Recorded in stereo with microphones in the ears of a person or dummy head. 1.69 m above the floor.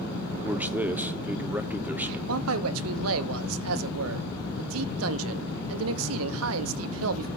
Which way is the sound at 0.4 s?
5° right (ahead or behind).